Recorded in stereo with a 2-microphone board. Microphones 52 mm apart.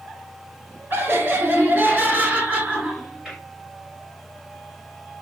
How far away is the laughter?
About 1.7 m.